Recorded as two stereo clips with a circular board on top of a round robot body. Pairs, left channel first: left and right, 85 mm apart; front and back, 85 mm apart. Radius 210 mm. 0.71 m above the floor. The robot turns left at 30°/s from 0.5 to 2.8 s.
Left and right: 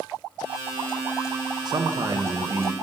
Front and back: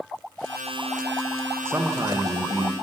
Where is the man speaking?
125° right, 0.6 m; by 2.7 s 155° right, 0.6 m.